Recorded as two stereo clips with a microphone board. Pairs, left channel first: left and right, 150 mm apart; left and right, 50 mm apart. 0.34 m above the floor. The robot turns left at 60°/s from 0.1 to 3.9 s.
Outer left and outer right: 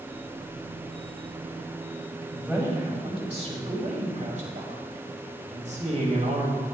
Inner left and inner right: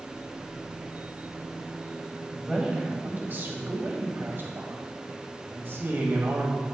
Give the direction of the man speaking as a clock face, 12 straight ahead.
12 o'clock.